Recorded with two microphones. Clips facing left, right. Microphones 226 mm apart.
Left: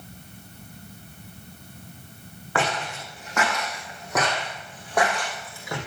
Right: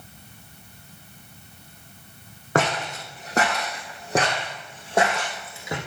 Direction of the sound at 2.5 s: 45° right (ahead or behind).